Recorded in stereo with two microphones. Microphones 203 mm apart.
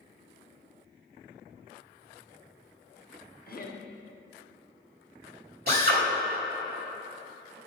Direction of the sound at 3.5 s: 50° left (ahead or behind).